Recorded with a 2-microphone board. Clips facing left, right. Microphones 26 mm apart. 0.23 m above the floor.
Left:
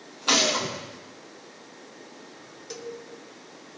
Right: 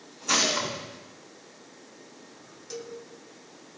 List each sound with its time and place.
0.3 s a gunshot: 80° left, 4.5 m
2.7 s a cowbell: 20° left (ahead or behind), 1.2 m